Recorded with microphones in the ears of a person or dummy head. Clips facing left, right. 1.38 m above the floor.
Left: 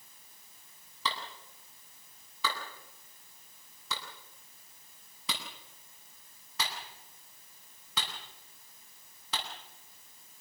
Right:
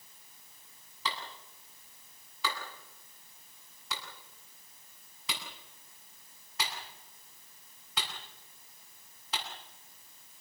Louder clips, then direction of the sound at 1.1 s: Left 1 dB; 85° left.